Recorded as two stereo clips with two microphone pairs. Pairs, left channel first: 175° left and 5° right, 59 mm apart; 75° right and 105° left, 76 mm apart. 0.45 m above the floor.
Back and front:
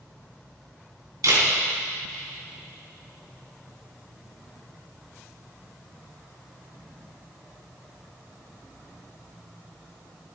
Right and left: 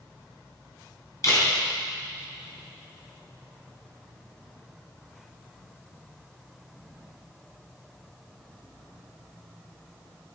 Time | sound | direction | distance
1.2 | a camera shutter | 30° right | 4 m